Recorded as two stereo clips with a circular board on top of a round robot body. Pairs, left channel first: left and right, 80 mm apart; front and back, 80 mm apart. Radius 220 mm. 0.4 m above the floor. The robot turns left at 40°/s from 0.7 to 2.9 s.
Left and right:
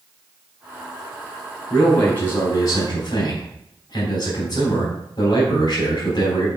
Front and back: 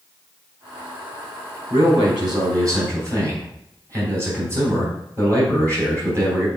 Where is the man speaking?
175° left, 3.5 m; by 6.5 s 125° left, 3.5 m.